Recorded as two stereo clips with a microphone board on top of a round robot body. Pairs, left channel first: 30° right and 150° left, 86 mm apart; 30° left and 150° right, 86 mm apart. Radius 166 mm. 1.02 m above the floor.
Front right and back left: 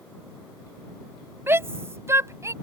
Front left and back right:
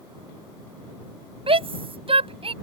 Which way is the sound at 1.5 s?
145° right.